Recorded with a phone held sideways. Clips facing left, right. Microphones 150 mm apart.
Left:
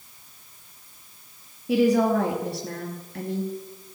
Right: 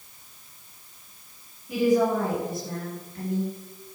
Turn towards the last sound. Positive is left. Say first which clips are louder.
# left 2 dB
turn(degrees=80)